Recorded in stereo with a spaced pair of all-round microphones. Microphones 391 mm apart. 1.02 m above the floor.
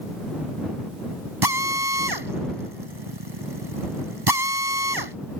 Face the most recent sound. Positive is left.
turn(degrees=-75)  # may be behind; listen again after turning